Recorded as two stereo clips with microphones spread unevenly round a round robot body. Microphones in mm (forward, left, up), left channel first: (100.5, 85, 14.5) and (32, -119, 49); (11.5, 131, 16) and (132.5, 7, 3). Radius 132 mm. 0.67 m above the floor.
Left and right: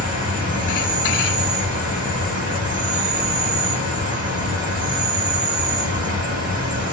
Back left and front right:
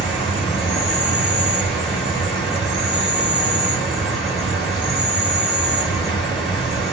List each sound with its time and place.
0.0 s an insect: 155° right, 1.0 m